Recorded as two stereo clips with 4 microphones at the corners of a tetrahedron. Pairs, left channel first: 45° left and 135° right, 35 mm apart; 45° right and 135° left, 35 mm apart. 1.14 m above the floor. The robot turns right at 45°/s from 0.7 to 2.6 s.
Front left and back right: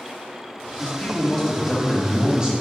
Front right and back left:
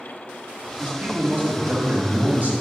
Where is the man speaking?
90° left, 2 m; by 2.5 s 165° left, 2 m.